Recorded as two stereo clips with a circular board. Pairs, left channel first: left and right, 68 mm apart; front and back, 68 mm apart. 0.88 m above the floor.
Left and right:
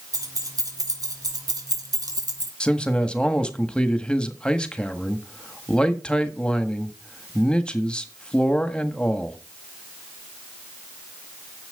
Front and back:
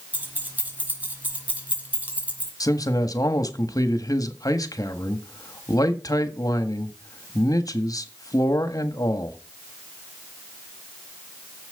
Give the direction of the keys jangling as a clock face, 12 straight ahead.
4 o'clock.